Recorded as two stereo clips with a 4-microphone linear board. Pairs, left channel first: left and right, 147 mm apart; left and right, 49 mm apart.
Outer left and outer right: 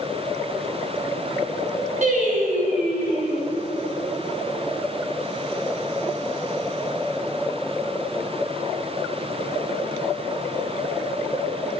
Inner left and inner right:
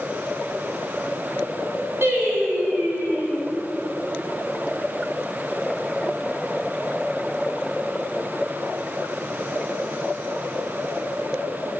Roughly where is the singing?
Right.